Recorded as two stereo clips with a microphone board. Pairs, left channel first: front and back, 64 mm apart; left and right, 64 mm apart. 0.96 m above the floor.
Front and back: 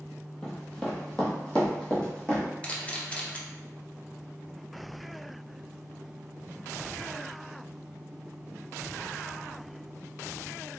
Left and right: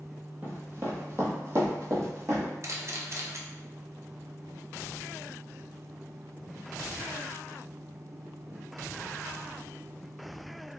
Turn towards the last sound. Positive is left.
turn(degrees=-65)